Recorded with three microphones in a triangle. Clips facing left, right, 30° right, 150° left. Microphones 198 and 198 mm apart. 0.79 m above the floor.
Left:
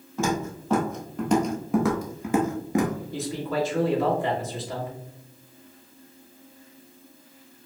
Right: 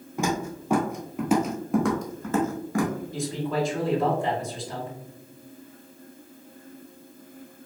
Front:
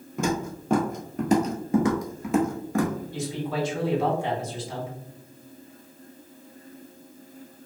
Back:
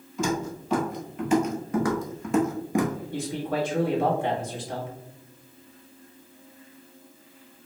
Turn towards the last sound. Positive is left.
turn(degrees=180)